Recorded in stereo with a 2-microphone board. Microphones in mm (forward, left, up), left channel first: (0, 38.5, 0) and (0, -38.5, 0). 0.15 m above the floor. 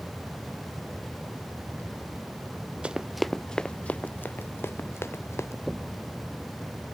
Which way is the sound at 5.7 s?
5° right (ahead or behind).